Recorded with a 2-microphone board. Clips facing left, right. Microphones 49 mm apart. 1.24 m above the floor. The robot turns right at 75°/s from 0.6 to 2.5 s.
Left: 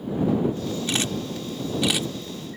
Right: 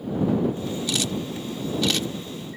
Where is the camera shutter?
35° left (ahead or behind); by 2.6 s 10° right (ahead or behind).